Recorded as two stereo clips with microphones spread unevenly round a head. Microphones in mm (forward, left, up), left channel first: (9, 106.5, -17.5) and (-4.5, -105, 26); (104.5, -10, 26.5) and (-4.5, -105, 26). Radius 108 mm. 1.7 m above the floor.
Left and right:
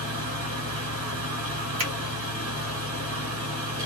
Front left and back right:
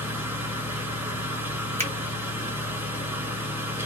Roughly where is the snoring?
No snoring in this recording.